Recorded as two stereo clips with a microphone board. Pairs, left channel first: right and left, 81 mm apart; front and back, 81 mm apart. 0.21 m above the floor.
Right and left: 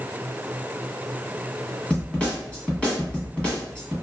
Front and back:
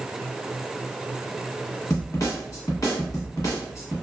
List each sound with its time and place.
1.9 s a snare drum: 20° right, 1.0 m